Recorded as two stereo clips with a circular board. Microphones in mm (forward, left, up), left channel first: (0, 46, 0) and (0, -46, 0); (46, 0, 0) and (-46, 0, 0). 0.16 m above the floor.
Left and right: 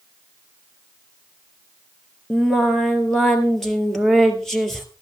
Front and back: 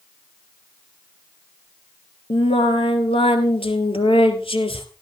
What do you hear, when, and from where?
2.3 s singing: 5° left, 1.7 m